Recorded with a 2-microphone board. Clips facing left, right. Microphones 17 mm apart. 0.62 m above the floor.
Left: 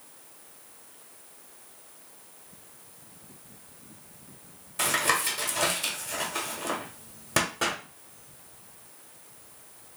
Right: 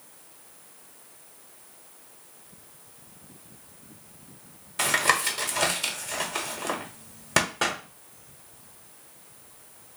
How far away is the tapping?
About 1.1 m.